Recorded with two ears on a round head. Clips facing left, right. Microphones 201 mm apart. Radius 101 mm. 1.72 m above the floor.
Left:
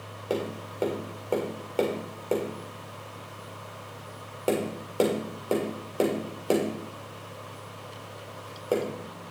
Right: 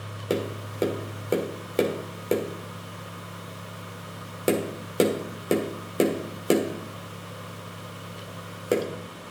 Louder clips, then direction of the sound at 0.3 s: Right 2 dB; 30° right (ahead or behind).